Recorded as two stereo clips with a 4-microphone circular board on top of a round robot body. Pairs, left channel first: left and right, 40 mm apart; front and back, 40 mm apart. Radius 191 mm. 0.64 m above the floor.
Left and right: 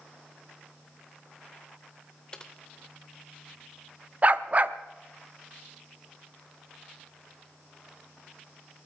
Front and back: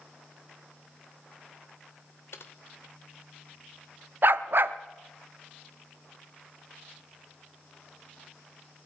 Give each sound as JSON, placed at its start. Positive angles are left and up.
{"t": 2.3, "sound": "typing on a keyboard", "azimuth_deg": 20, "distance_m": 0.6}
{"t": 4.2, "sound": "a dog barking", "azimuth_deg": -145, "distance_m": 0.6}